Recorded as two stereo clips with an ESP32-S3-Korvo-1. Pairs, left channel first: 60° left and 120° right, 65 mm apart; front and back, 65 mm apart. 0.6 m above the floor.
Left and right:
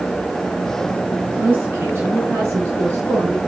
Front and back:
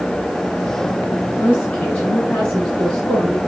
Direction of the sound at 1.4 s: 65° right.